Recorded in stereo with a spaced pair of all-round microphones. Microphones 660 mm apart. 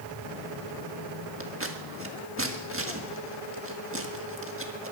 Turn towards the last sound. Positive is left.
turn(degrees=-20)  # may be behind; listen again after turning